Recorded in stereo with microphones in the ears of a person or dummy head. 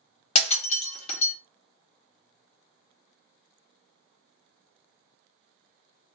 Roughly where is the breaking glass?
Left.